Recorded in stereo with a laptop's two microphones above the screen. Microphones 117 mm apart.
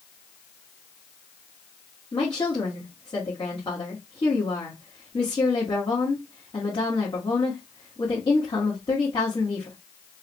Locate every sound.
2.1 s a woman speaking: 45° left (ahead or behind), 1.5 m